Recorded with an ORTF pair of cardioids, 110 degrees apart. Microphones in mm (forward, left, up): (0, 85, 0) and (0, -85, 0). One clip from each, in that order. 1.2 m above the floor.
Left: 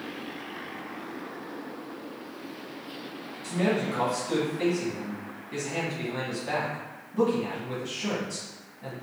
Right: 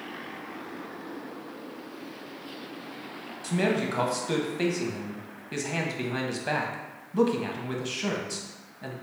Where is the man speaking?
45° right, 1.0 m.